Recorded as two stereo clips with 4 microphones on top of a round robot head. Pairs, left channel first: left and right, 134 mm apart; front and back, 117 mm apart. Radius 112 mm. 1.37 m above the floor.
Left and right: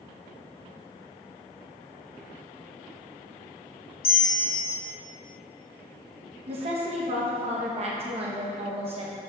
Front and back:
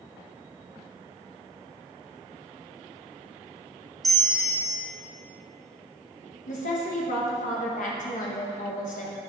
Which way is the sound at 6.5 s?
35° right.